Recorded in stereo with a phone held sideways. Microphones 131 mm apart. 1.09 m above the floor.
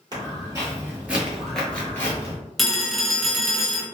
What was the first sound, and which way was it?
Footsteps, 30° right (ahead or behind).